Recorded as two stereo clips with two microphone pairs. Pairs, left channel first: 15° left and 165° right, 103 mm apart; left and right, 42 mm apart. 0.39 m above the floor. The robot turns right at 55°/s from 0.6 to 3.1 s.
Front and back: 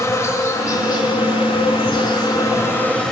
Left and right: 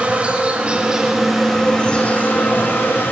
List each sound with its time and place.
0.0 s an insect: 40° right, 1.4 m; by 3.1 s 100° left, 1.4 m